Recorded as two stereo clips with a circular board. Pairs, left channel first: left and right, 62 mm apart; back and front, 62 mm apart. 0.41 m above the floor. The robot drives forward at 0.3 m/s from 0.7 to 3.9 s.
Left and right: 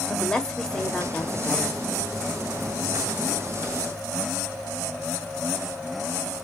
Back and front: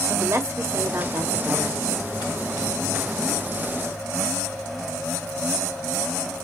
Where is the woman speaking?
15° left, 1.5 m; by 1.8 s 20° left, 1.3 m.